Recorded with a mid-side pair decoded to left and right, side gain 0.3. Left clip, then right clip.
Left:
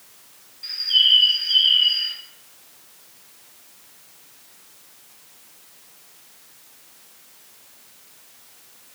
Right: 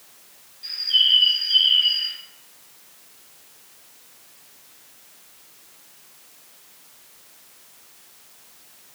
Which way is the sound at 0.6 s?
40° left.